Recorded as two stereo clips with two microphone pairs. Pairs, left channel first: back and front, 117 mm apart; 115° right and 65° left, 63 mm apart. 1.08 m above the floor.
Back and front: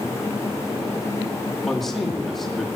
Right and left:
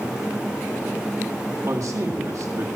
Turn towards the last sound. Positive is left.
turn(degrees=90)